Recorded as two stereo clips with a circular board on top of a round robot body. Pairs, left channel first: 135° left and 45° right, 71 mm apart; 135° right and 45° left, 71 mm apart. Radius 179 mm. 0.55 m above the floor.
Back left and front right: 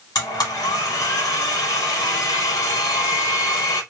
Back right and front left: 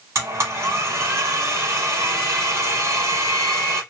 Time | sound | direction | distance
0.1 | a blender | 100° left | 1.1 m